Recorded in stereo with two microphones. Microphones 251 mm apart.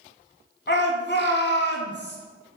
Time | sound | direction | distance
0.7 | a shout | 45° left (ahead or behind) | 1.4 m